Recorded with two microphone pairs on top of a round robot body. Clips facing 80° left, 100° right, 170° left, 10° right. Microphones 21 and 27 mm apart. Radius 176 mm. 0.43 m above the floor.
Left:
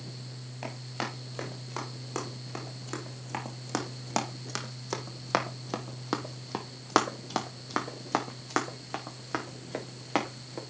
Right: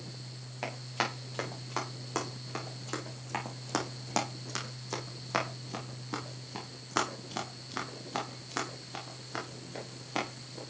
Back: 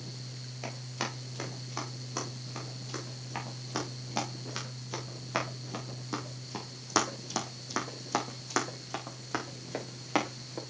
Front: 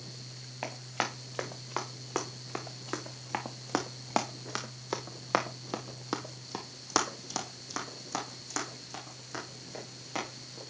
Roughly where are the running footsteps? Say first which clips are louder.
Right 3 dB, front 3 dB; ahead right.